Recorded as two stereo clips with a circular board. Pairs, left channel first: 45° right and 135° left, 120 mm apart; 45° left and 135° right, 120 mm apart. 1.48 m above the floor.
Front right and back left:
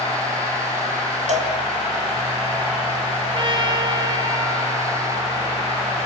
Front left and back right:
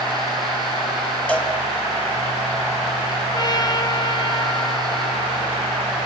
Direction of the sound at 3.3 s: 95° left.